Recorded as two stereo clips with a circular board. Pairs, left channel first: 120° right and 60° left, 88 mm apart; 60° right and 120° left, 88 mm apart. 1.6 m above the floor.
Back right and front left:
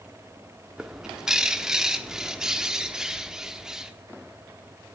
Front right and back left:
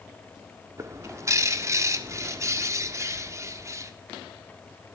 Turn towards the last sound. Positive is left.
turn(degrees=140)